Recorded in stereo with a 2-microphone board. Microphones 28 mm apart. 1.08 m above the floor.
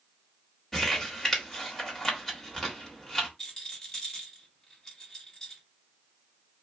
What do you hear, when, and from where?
0.7 s crumpling: 10° left (ahead or behind), 1.7 m
3.4 s a rattle: 20° left (ahead or behind), 1.5 m